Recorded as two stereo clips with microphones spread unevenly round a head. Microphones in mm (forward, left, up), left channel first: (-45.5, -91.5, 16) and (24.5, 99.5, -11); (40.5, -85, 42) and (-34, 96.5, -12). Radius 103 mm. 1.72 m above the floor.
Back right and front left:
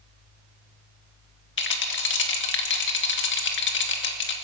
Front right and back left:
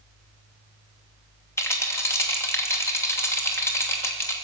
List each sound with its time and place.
1.6 s a rattle: 140° right, 2.5 m